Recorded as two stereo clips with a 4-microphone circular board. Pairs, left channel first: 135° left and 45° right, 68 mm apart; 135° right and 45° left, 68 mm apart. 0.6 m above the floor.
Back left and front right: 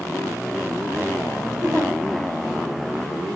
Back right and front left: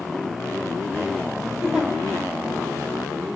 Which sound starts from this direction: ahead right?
A giggle, at 1.6 s.